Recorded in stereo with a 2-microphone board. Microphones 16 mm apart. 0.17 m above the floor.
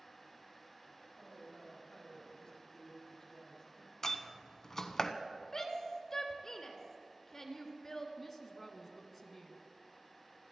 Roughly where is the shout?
Left.